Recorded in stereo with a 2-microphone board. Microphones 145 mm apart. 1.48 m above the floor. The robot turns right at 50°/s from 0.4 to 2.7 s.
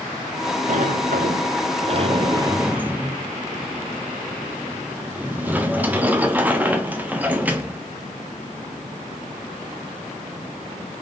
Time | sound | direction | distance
0.7 | a sliding door | 115° right | 0.6 m